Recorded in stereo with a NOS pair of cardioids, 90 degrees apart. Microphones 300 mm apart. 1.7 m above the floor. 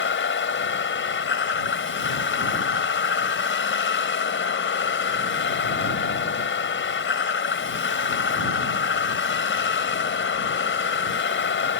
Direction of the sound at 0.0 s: 45° left.